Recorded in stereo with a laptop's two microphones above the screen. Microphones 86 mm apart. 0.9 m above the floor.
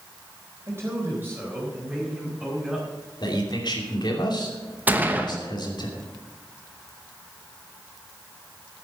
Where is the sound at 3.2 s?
55° left (ahead or behind), 2.5 m.